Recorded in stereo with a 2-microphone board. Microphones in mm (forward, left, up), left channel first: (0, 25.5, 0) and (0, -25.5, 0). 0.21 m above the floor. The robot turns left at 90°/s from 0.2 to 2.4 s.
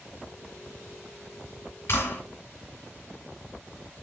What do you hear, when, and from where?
1.9 s a clap: 55° left (ahead or behind), 2 m; by 2.2 s 45° left (ahead or behind), 2 m